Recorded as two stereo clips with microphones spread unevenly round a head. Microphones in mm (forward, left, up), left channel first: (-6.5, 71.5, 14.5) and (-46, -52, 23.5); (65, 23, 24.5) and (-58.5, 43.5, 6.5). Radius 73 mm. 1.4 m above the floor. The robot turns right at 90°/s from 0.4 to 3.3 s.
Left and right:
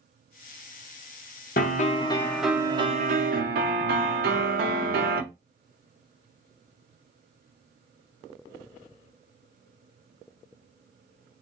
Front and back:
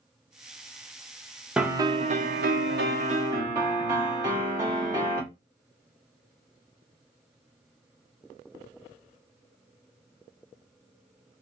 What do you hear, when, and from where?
1.6 s a piano: 85° left, 0.9 m; by 5.2 s 120° right, 0.9 m